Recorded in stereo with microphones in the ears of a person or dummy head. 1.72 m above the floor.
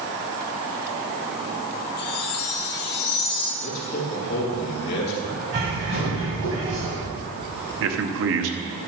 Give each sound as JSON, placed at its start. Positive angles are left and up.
{"t": 2.0, "sound": "a chime", "side_deg": 55, "distance_m": 2.0}
{"t": 3.6, "sound": "a man speaking", "side_deg": 55, "distance_m": 2.5}
{"t": 5.5, "sound": "a bird", "side_deg": -40, "distance_m": 2.0}
{"t": 7.8, "sound": "a man speaking", "side_deg": -65, "distance_m": 0.9}